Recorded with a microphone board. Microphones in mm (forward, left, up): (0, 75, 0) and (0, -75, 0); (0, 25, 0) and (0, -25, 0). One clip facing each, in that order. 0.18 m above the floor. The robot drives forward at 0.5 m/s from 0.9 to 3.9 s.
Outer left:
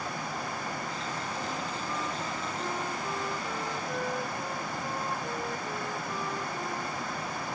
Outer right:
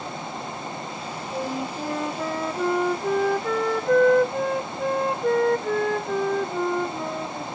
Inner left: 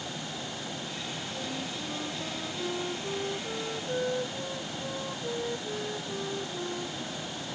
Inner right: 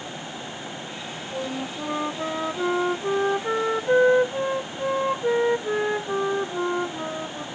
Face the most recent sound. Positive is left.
turn(degrees=-80)